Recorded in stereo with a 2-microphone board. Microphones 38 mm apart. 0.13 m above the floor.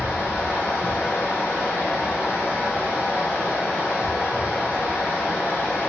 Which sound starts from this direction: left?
Running water, at 0.0 s.